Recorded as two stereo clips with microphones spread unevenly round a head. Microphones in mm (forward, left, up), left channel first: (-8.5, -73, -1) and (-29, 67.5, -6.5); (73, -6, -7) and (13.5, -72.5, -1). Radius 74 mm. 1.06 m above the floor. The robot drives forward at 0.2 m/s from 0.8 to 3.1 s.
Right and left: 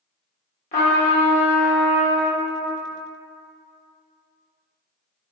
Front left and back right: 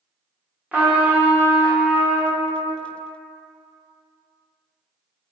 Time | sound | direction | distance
0.7 | a trumpet | 60° right | 1.0 m